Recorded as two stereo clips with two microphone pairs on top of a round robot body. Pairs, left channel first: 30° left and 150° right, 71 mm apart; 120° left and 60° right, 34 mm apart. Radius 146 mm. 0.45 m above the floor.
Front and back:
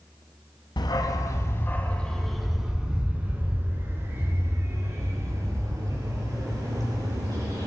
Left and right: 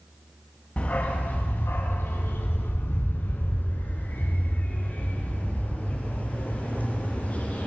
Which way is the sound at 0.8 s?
65° left.